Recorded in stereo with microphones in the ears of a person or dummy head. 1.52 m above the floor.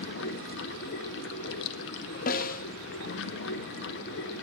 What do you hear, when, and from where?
0.0 s running water: 65° left (ahead or behind), 0.8 m
2.3 s a snare drum: 50° left (ahead or behind), 0.6 m